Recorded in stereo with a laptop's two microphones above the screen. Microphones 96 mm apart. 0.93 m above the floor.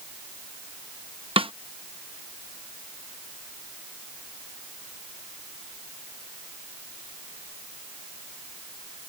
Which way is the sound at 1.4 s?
70° right (ahead or behind).